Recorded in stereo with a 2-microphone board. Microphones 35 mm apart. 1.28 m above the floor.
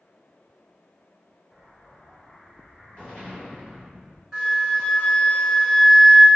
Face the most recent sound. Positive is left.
turn(degrees=-15)  # may be behind; listen again after turning